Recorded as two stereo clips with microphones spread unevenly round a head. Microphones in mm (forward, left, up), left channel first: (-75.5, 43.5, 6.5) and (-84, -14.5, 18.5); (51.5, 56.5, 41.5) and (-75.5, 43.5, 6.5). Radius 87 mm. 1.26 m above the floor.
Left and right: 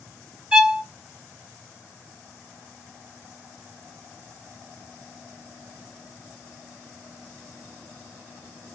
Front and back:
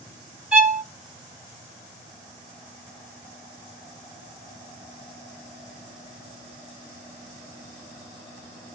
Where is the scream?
I don't hear a scream.